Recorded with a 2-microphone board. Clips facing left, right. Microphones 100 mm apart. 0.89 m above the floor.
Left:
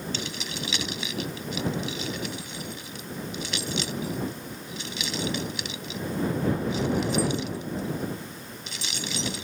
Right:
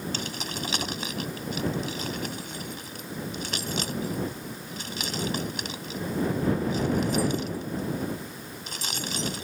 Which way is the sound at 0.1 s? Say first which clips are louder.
Right 1 dB; 45° right (ahead or behind).